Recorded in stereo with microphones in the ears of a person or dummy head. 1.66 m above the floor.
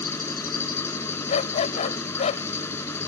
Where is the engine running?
20° left (ahead or behind).